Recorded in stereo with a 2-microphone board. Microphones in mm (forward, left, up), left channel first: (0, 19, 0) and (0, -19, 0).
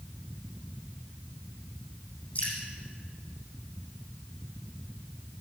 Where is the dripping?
40° left (ahead or behind), 7 m.